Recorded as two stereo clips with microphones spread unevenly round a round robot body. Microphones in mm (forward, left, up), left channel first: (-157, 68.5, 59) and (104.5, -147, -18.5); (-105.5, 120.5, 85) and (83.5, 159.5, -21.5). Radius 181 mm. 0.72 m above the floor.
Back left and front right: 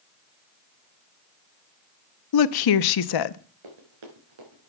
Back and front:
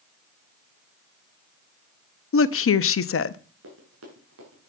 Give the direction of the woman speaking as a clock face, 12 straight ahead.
7 o'clock.